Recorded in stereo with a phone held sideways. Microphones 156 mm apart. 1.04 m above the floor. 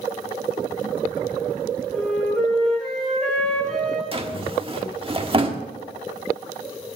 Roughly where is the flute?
Centre.